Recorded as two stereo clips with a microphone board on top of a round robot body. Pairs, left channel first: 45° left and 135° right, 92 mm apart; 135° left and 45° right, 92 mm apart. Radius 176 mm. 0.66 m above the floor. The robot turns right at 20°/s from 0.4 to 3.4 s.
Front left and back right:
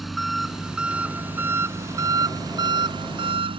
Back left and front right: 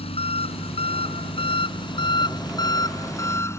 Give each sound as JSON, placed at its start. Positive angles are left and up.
{"t": 0.0, "sound": "an engine running", "azimuth_deg": 135}